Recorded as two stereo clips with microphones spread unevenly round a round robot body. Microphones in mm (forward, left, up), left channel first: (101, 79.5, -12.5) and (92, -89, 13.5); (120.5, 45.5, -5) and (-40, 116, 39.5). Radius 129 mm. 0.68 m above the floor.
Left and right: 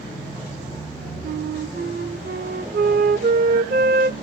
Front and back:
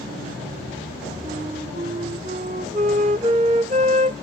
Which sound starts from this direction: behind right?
A flute, at 1.2 s.